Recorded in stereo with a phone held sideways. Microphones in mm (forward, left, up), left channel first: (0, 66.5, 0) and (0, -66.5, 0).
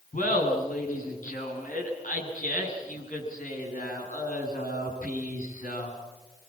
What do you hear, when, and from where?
0.1 s laughter: 80° left, 7.5 m